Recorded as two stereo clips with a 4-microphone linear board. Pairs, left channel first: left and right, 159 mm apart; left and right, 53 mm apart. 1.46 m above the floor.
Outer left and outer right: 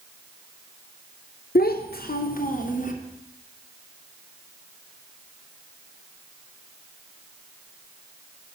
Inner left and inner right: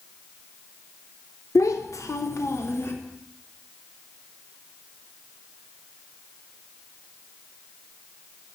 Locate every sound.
1.6 s a child speaking: 75° left (ahead or behind), 0.6 m; by 2.9 s 55° left (ahead or behind), 1.2 m